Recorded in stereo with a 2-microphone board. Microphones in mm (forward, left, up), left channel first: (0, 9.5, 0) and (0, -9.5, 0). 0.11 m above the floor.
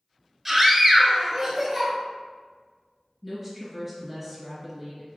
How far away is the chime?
I don't hear a chime.